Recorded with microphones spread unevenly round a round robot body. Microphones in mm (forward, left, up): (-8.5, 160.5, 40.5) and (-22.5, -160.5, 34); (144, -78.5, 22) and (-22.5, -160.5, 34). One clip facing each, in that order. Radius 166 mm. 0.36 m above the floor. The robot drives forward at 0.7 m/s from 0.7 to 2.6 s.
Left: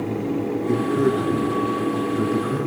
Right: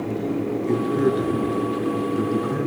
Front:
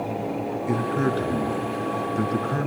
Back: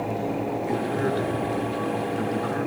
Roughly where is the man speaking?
Ahead.